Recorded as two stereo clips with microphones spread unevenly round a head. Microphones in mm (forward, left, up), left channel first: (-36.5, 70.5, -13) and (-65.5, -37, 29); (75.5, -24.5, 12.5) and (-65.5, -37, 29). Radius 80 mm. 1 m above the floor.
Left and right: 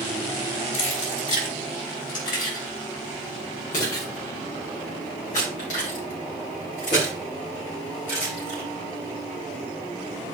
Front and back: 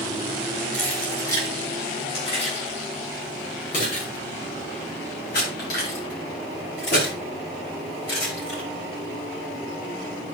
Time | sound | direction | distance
0.7 | keys jangling | 90° left | 4 m